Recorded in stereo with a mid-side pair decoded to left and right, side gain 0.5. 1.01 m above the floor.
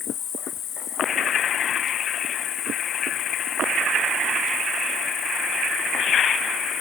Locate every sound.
0.0 s an insect: 60° left, 1.4 m